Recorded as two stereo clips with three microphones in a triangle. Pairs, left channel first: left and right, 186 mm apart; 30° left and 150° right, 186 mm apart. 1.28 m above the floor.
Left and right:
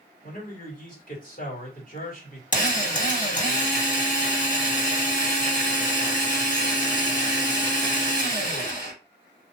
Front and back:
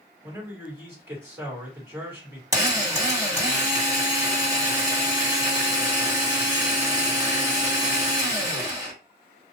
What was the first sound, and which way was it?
A man speaking, 135° left.